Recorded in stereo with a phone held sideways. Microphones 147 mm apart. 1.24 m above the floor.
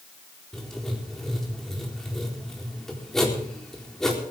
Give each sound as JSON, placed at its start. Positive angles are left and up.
{"t": 0.5, "sound": "writing", "side_deg": 5, "distance_m": 4.0}